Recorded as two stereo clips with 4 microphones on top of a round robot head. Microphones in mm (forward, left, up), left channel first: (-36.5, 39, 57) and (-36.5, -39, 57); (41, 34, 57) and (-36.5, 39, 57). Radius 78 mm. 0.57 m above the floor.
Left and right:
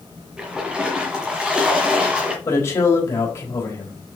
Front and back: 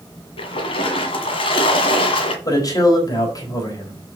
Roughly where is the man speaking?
Ahead left.